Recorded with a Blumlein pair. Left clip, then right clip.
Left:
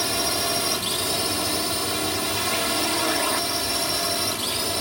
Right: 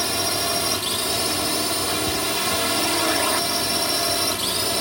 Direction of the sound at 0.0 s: Straight ahead.